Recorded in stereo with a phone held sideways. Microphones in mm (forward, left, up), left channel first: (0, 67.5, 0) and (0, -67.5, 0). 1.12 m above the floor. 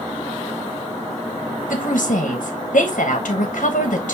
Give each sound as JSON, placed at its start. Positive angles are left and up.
{"t": 1.7, "sound": "a woman speaking", "side_deg": 70, "distance_m": 1.0}